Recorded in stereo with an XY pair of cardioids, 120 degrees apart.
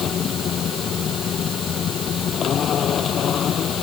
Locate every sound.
0.0 s a machine running: 50° left